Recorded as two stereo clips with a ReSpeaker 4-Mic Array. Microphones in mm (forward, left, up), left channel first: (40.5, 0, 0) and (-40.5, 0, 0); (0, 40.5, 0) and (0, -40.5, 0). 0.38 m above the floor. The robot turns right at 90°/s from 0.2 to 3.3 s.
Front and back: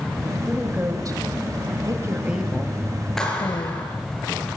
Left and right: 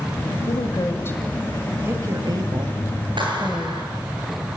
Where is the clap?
85° right, 7 m; by 3.9 s 75° right, 7 m.